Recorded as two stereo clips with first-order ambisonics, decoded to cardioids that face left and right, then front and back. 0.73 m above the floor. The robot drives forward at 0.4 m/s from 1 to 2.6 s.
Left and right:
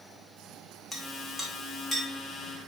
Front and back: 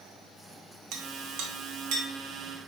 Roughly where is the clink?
Behind.